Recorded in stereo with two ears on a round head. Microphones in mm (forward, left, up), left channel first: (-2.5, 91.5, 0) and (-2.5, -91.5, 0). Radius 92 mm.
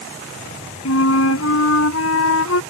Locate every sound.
0.8 s a flute: 80° left